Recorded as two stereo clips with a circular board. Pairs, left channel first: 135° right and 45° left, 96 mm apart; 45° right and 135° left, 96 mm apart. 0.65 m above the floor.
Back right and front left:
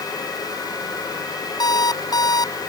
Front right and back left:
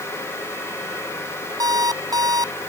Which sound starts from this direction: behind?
An alarm clock, at 1.6 s.